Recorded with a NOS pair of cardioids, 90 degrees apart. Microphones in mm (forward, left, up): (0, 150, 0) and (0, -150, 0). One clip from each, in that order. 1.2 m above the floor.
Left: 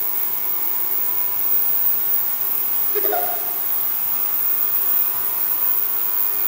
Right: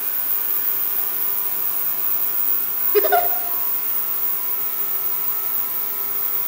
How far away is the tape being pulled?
I don't hear tape being pulled.